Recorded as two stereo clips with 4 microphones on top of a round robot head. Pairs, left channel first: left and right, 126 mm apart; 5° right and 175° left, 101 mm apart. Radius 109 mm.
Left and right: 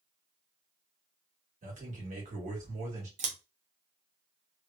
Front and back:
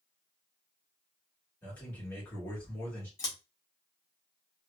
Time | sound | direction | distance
1.6 | a man speaking | 75° right | 1.7 m
3.2 | scissors | 60° right | 0.8 m